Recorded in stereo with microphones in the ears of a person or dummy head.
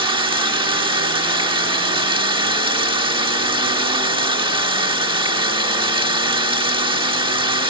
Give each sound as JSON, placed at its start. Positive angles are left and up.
{"t": 0.0, "sound": "running water", "side_deg": -20}